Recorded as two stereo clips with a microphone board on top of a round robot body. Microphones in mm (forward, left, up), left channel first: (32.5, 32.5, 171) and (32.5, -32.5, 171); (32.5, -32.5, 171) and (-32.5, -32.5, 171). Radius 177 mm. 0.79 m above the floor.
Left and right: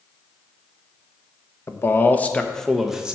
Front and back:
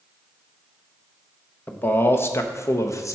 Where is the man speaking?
55° left, 1.2 m; by 3.1 s 15° right, 1.2 m.